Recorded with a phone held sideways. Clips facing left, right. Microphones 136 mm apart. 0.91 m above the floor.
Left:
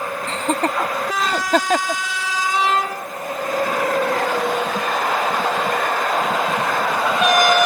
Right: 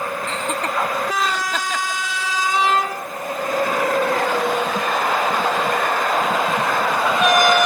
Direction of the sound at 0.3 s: 40° left (ahead or behind).